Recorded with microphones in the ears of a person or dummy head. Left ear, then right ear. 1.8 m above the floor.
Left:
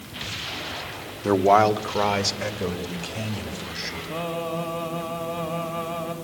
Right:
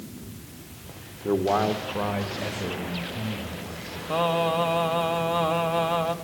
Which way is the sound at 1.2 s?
65° left (ahead or behind).